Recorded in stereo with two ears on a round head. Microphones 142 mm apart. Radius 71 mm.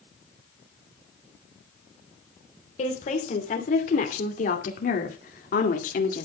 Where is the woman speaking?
45° left (ahead or behind), 3 m; by 6.2 s 55° left (ahead or behind), 1.9 m.